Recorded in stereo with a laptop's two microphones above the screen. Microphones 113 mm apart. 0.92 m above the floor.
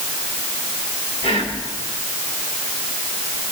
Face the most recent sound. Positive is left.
turn(degrees=75)  # may be behind; listen again after turning